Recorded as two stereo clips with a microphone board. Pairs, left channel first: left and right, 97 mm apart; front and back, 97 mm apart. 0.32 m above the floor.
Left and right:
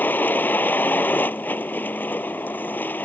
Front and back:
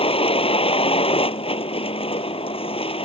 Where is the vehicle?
20° left.